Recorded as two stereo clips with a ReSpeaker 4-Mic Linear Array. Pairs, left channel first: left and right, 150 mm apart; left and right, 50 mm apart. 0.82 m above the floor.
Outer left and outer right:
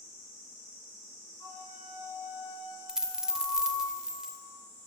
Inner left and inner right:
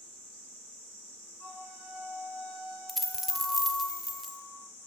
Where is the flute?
25° left (ahead or behind), 2.5 m.